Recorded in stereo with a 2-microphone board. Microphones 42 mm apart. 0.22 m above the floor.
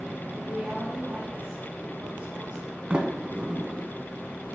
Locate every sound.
0.3 s a woman speaking: 25° right (ahead or behind), 1.9 m
2.9 s a sliding door: 30° right (ahead or behind), 0.9 m